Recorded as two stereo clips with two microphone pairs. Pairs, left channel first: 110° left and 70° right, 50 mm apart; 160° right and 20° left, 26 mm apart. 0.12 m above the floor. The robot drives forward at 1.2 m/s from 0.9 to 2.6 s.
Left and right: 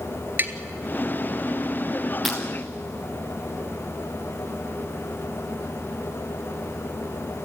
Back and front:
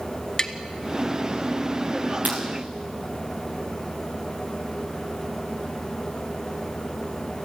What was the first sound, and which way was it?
Tapping, 100° right.